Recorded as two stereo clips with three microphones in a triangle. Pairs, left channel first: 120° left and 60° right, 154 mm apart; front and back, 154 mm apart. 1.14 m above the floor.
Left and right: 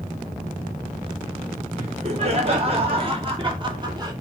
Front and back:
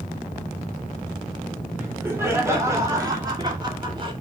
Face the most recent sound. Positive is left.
turn(degrees=-125)